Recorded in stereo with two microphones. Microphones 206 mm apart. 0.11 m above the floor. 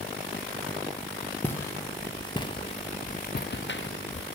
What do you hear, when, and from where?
1.4 s footsteps: 10° left (ahead or behind), 1.4 m; by 4.3 s 85° left, 0.6 m